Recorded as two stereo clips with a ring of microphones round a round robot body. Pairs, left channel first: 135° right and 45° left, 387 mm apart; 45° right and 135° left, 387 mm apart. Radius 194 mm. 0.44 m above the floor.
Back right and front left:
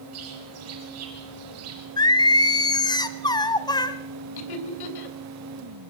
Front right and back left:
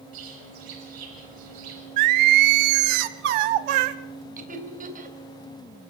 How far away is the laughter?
About 3 m.